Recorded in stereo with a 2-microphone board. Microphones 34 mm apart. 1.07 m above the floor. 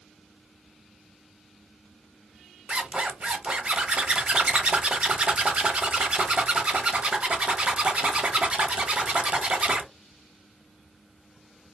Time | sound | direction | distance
2.7 | a zipper | 35° right (ahead or behind) | 0.5 m